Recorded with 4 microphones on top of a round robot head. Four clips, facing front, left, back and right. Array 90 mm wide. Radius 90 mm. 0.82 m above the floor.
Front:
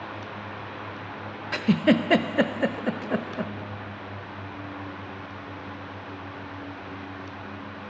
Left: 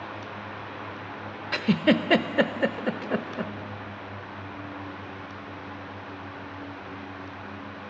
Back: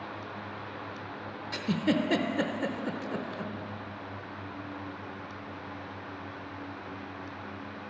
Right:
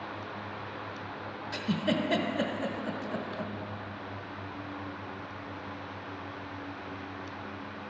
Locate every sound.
1.5 s a giggle: 50° left, 0.7 m